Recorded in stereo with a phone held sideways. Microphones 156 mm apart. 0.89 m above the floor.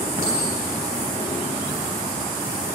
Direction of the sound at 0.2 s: 65° right (ahead or behind).